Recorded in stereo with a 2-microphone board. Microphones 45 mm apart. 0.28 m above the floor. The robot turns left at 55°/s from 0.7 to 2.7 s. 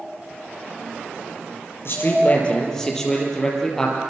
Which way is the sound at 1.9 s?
60° left.